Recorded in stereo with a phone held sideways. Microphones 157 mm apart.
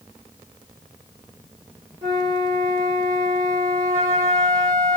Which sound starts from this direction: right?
A flute, at 2.0 s.